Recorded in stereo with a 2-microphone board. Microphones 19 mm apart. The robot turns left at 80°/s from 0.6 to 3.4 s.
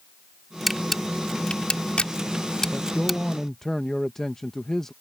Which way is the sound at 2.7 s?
90° left.